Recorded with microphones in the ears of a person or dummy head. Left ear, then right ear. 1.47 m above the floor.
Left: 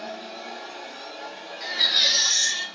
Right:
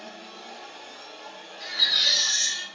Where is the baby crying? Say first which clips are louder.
Left 1 dB; 20° right (ahead or behind), 1.4 m.